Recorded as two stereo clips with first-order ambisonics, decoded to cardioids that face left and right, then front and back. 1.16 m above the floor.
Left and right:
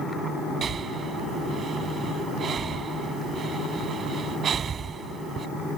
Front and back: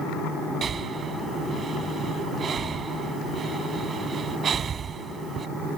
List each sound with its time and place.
0.6 s breathing: 130° right